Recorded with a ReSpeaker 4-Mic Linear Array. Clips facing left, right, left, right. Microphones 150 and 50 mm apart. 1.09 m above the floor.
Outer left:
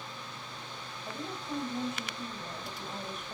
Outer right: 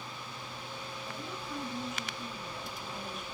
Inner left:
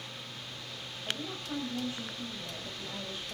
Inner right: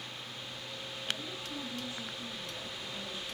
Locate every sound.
1.1 s a woman speaking: 35° left (ahead or behind), 5 m